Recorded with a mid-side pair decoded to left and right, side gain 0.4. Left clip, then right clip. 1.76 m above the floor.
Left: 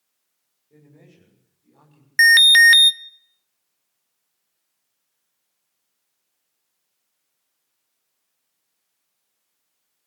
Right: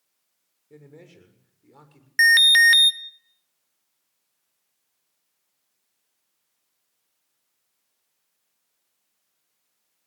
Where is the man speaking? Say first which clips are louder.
Right 5 dB; 65° right, 7 m.